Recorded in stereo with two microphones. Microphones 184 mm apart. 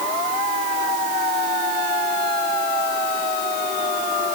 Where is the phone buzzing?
No phone buzzing in this recording.